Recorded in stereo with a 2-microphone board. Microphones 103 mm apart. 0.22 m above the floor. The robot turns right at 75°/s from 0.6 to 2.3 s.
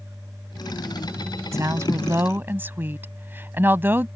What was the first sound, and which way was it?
A woman speaking, 100° right.